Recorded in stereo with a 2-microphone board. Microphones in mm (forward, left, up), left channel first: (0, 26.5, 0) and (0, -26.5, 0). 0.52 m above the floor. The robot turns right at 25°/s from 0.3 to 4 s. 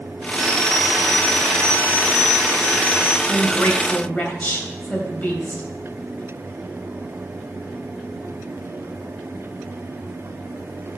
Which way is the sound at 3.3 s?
45° left (ahead or behind).